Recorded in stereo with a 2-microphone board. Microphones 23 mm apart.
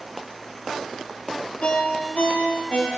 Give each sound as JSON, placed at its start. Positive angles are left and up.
{"t": 1.6, "sound": "a ringtone", "side_deg": 55, "distance_m": 5.0}